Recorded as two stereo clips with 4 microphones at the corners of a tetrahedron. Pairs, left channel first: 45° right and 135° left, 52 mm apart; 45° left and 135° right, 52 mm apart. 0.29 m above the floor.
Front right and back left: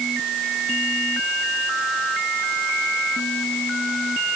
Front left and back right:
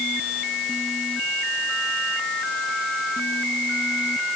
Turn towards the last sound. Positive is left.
No sound to turn to.